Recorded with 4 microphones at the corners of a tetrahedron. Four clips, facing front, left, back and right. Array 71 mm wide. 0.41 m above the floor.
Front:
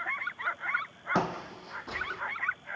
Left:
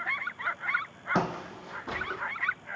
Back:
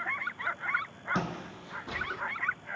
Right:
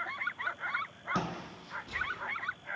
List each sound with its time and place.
1.1 s footsteps: 45° left, 0.8 m; by 2.2 s 95° left, 0.8 m